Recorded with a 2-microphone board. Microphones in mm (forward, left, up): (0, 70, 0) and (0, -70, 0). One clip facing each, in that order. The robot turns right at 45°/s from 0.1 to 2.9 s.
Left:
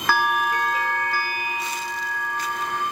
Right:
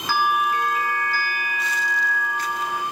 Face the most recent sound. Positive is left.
turn(degrees=-160)